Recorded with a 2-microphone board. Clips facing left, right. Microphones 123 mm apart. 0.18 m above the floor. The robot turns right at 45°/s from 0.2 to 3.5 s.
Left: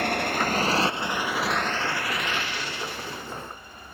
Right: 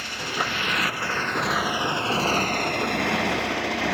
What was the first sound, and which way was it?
A motorcycle, 120° left.